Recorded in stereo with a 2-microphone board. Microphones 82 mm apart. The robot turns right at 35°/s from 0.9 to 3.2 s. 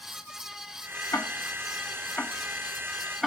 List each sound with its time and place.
1.1 s ticking: 40° left (ahead or behind), 1.4 m; by 3.3 s centre (ahead or behind), 1.4 m